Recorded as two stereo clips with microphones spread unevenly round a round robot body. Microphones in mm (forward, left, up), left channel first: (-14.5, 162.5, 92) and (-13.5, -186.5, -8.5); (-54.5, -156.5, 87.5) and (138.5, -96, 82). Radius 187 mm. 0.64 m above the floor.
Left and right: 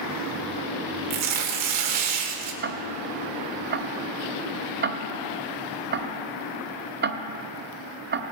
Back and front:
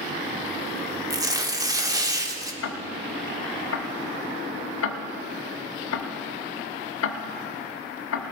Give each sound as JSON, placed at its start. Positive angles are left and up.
{"t": 1.1, "sound": "tearing paper", "azimuth_deg": -55, "distance_m": 1.6}
{"t": 2.6, "sound": "ticking", "azimuth_deg": -155, "distance_m": 0.8}